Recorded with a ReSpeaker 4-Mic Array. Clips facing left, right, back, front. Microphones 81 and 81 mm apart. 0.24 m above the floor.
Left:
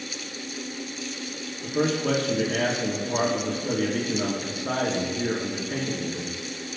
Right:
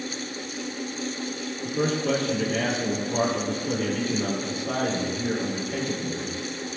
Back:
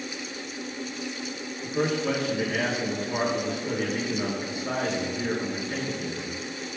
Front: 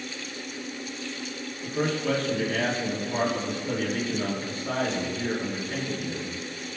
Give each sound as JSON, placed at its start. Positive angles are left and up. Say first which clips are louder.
{"t": 1.6, "sound": "a man speaking", "louder": "left 1 dB, back 1 dB", "azimuth_deg": 100, "distance_m": 4.0}